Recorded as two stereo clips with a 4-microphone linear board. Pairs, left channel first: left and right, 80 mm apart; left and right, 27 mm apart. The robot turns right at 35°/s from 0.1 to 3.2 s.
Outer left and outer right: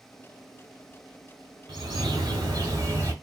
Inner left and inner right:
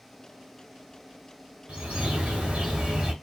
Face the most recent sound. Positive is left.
turn(degrees=-35)